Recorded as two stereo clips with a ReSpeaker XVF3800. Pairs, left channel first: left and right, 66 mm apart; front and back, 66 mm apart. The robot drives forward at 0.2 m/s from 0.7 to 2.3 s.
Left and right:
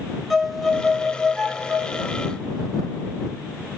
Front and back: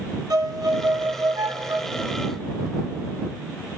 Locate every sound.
0.3 s a violin: straight behind, 0.6 m